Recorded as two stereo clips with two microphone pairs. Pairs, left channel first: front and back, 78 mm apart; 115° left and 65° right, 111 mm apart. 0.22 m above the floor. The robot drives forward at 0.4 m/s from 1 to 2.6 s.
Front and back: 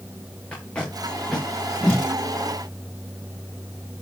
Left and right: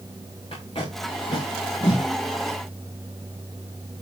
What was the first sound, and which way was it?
Tape being pulled, 80° left.